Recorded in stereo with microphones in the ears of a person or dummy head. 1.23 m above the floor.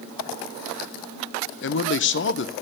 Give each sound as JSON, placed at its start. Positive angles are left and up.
{"t": 1.6, "sound": "a man speaking", "side_deg": 50, "distance_m": 1.1}